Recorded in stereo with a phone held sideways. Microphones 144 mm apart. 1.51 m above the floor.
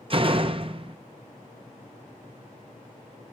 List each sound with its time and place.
0.1 s a door slam: 40° right (ahead or behind), 0.7 m